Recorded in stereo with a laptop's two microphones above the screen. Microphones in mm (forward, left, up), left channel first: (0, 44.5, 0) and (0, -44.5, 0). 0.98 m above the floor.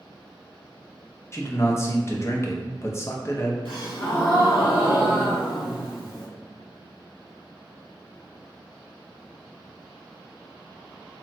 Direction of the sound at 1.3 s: 30° left (ahead or behind).